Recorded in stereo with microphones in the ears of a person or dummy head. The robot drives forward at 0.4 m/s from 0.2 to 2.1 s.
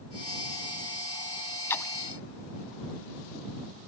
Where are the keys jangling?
I don't hear keys jangling.